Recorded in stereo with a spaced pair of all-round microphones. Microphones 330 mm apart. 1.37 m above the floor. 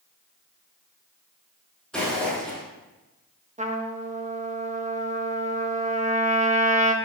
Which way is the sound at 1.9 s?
Centre (ahead or behind).